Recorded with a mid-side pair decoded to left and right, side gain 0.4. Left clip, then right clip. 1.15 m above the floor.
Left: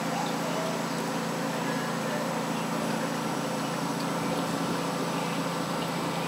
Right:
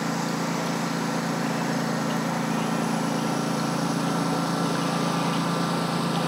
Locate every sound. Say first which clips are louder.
0.0 s a lawn mower: right 2 dB; 45° right; by 6.3 s 55° right